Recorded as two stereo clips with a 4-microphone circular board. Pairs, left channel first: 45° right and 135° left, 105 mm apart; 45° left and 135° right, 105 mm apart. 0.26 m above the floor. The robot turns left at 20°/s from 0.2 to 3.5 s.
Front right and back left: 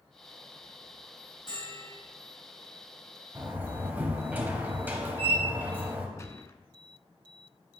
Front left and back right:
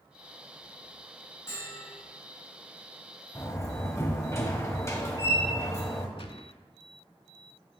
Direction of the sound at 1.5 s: 10° right.